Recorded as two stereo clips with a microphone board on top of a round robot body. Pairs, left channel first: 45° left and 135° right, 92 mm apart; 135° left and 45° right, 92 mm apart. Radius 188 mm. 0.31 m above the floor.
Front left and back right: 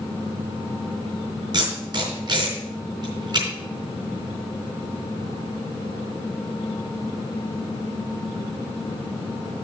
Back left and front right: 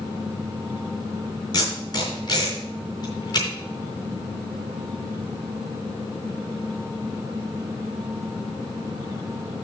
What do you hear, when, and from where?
1.5 s tape being pulled: straight behind, 4 m